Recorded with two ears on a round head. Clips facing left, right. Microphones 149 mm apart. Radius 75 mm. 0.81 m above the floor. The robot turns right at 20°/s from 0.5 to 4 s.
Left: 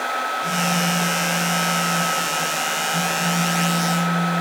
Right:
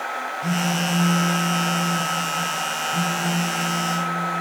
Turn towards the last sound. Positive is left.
turn(degrees=5)